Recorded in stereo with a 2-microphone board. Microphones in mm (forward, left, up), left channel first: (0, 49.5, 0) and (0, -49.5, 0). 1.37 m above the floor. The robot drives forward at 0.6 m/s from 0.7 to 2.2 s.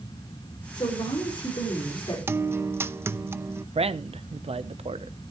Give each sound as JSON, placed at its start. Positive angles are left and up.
{"t": 0.8, "sound": "a woman speaking", "side_deg": 45, "distance_m": 5.5}
{"t": 2.3, "sound": "a guitar", "side_deg": -25, "distance_m": 0.6}
{"t": 3.8, "sound": "a man speaking", "side_deg": -80, "distance_m": 0.8}